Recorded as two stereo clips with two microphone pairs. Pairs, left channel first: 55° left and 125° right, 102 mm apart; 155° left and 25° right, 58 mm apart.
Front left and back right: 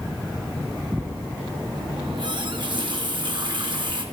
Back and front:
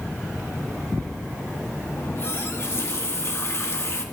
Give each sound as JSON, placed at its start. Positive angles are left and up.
{"t": 2.0, "sound": "a running tap", "azimuth_deg": -165, "distance_m": 1.0}